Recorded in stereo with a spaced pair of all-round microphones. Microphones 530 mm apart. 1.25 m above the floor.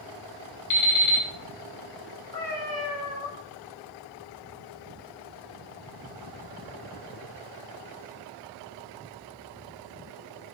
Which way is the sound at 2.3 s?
5° left (ahead or behind).